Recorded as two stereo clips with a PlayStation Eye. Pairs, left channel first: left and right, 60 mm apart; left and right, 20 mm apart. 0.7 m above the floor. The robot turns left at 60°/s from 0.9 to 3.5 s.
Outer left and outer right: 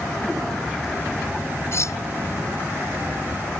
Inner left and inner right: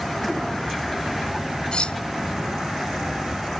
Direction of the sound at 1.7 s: 45° left (ahead or behind).